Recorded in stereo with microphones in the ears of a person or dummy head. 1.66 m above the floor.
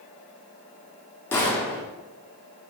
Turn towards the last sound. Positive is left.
turn(degrees=15)  # may be behind; listen again after turning